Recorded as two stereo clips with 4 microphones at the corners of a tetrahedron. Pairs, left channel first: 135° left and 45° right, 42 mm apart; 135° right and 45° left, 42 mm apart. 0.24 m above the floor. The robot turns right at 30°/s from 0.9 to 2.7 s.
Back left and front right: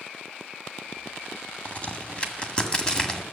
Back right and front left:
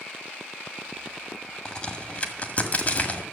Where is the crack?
165° left, 1.8 m; by 3.2 s 165° right, 1.8 m.